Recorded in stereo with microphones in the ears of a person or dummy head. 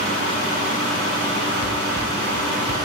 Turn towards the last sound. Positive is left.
turn(degrees=-45)  # may be behind; listen again after turning